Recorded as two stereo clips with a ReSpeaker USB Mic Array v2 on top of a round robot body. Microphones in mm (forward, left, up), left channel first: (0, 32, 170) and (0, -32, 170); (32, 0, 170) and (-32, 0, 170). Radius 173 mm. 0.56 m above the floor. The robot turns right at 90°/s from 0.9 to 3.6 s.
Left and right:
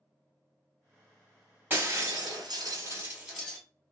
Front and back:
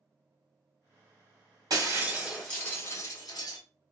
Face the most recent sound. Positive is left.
turn(degrees=20)